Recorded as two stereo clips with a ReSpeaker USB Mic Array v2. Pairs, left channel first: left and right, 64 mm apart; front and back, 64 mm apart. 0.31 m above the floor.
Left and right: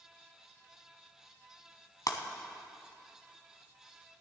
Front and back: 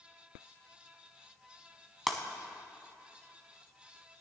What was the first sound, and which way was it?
Breaking glass, 90° left.